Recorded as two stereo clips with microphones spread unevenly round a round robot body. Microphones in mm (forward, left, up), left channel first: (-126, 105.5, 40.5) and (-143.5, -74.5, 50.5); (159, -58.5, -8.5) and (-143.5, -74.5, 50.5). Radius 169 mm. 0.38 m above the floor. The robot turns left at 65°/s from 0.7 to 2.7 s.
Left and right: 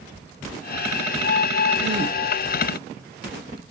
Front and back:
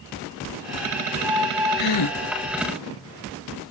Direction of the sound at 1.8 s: 10° right.